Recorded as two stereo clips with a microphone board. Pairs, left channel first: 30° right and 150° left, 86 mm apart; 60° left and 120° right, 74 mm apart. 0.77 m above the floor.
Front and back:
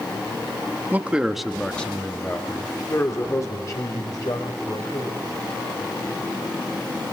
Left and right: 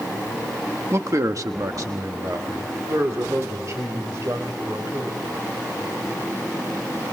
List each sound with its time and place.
0.9 s a man speaking: 150° right, 1.2 m; by 5.3 s 65° right, 4 m